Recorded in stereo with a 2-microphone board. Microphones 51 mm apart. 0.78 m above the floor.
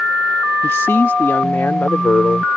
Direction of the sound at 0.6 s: 55° left (ahead or behind).